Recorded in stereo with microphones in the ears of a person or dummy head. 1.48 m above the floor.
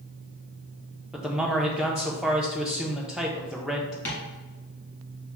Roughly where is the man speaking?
Centre.